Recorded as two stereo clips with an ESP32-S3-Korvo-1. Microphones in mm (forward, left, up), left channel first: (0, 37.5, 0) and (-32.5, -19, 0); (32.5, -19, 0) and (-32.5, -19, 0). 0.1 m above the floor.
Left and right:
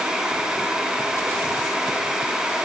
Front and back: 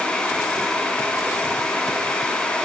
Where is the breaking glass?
No breaking glass in this recording.